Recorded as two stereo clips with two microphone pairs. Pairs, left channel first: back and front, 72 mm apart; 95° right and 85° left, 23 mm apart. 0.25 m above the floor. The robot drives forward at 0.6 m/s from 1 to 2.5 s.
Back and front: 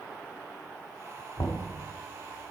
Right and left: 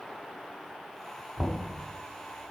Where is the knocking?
175° right, 1.3 m.